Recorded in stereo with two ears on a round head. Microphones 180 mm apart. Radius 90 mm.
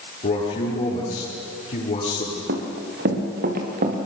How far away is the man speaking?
About 10 m.